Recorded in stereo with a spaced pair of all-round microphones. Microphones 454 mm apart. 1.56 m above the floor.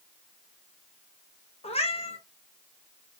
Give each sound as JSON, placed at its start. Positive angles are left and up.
{"t": 1.6, "sound": "a cat meowing", "side_deg": 15, "distance_m": 0.7}